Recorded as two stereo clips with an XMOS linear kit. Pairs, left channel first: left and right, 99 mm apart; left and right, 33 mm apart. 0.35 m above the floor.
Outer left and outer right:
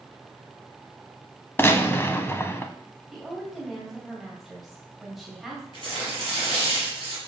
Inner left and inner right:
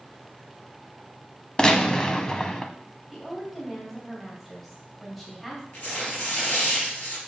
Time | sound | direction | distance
1.6 | a gunshot | 25° left (ahead or behind) | 0.8 m
3.1 | a woman speaking | centre (ahead or behind) | 2 m
5.7 | tearing paper | 55° left (ahead or behind) | 4 m